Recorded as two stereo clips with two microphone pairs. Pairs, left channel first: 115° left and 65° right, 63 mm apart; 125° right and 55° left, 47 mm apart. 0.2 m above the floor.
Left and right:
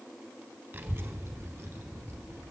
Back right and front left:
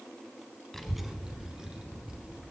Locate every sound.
0.7 s a child speaking: 55° right, 0.7 m; by 2.4 s 20° right, 2.5 m